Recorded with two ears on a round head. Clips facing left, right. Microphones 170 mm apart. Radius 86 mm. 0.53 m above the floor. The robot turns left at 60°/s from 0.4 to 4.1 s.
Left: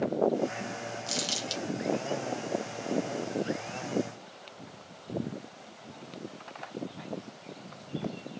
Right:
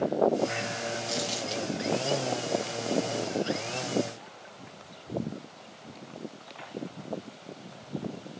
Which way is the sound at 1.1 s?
35° left (ahead or behind).